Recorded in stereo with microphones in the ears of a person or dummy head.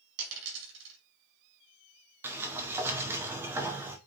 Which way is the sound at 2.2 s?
10° right (ahead or behind).